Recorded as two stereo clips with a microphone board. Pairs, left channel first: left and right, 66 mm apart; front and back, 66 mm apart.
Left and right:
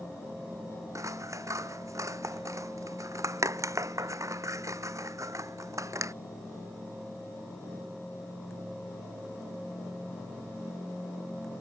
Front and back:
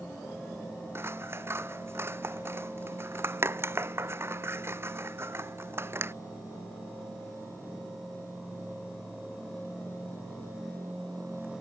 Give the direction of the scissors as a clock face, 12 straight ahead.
4 o'clock.